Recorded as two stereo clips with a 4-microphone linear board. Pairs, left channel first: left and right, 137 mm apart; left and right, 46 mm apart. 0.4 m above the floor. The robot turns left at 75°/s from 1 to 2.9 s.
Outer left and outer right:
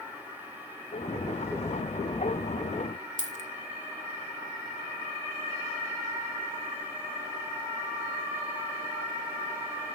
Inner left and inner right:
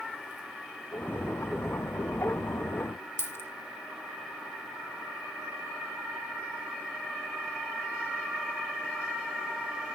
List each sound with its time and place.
3.2 s a dropped coin: 65° left (ahead or behind), 1.4 m